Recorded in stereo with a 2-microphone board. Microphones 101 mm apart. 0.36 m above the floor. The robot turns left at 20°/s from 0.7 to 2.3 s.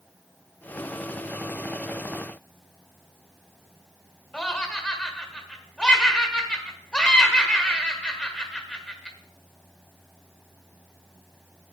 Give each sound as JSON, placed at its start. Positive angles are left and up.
{"t": 4.3, "sound": "laughter", "side_deg": 10, "distance_m": 1.4}